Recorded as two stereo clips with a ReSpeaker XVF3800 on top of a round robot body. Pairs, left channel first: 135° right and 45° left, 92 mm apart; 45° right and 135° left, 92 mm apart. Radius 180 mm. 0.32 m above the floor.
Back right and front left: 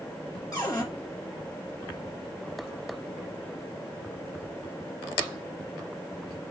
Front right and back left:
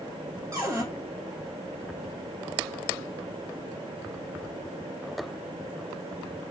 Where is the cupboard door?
175° left, 2.0 m.